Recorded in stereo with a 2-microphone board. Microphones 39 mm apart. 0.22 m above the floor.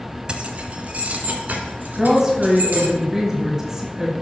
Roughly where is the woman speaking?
Centre.